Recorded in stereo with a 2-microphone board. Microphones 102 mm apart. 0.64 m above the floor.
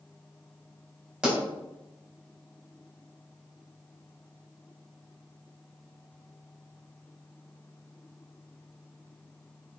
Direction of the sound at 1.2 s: 5° right (ahead or behind).